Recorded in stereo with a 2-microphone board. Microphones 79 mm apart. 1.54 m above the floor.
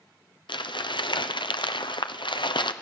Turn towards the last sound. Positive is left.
turn(degrees=80)